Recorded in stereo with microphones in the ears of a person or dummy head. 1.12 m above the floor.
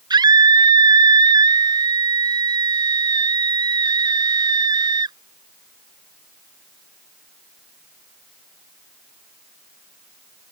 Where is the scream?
20° right (ahead or behind).